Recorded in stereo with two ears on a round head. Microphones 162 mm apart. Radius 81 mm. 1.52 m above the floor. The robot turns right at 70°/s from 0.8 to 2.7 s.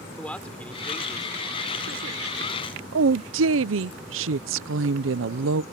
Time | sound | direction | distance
0.2 | a man speaking | 175° left | ?
2.9 | a woman speaking | 85° right | ?